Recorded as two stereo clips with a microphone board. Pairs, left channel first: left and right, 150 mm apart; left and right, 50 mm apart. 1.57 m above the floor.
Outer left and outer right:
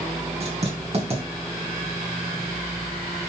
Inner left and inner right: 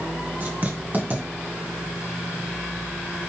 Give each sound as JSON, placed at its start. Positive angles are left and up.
{"t": 0.4, "sound": "writing", "side_deg": -40, "distance_m": 3.0}